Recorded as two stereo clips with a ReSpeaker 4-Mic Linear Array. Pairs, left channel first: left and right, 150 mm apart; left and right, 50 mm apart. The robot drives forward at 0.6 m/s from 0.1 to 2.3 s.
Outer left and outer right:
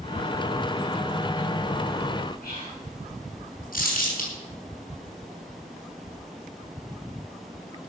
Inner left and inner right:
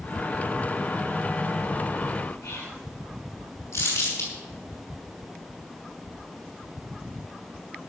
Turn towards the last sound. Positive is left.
turn(degrees=70)  # may be behind; listen again after turning